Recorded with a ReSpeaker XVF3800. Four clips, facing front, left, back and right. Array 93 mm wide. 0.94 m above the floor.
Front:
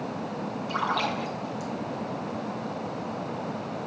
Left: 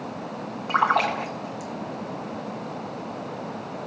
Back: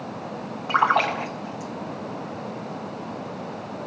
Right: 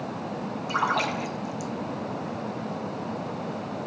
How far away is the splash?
About 0.8 m.